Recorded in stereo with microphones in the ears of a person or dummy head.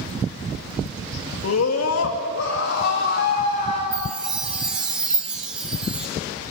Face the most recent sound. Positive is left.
turn(degrees=-5)  # may be behind; listen again after turning